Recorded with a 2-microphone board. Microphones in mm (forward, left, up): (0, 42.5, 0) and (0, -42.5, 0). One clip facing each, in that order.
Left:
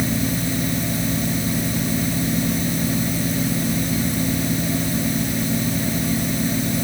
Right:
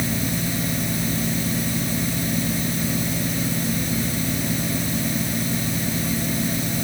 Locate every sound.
Only background noise.